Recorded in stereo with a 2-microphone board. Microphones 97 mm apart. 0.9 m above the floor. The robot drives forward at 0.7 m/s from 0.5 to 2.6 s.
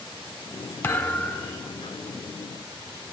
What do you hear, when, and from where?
0.8 s a thud: 20° left (ahead or behind), 0.6 m; by 1.7 s 10° left (ahead or behind), 1.1 m